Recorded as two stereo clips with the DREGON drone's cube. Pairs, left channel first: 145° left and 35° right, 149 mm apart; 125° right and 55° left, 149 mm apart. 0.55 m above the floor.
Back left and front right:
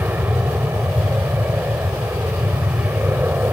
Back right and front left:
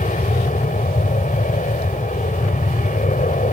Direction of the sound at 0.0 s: 115° right.